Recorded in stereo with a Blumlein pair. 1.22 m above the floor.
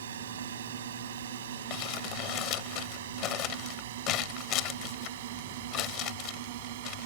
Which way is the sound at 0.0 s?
60° right.